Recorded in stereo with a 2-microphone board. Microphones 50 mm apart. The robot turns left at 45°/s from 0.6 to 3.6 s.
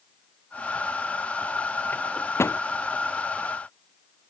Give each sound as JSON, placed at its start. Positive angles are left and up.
{"t": 1.9, "sound": "a microwave", "side_deg": 40}